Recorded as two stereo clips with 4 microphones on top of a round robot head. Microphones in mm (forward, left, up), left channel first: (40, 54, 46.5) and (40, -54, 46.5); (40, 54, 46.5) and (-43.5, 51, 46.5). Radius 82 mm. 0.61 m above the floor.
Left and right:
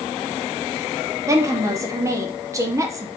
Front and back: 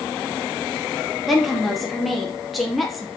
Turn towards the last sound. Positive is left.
turn(degrees=-85)